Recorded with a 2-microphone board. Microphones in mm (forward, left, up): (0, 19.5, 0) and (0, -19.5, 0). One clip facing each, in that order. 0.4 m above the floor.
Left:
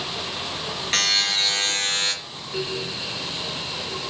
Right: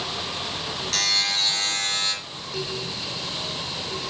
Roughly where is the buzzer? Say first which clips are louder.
Left 3 dB; left.